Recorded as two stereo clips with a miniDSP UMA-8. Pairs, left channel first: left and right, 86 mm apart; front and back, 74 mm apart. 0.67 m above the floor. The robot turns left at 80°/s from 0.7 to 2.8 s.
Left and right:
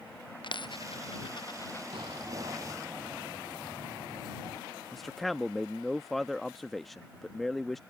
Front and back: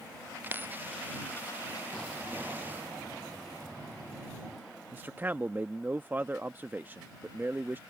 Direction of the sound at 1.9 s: 80° right.